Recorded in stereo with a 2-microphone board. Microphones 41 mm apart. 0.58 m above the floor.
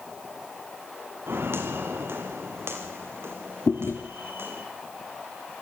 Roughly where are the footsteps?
Right.